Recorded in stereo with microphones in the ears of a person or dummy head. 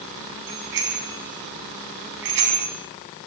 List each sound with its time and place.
0.5 s a bicycle bell: 65° right (ahead or behind), 8 m